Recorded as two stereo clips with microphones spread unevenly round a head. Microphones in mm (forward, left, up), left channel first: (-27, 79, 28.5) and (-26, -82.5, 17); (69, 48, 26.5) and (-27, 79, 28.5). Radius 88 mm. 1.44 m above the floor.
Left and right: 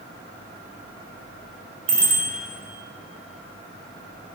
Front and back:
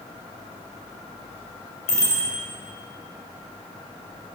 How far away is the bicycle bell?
About 4 m.